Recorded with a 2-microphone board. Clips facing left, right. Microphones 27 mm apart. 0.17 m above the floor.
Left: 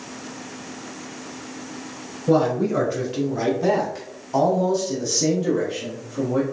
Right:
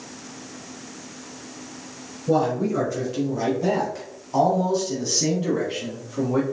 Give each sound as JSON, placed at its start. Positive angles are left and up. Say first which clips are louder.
{"t": 2.3, "sound": "a man speaking", "louder": "left 2 dB", "side_deg": 35, "distance_m": 1.6}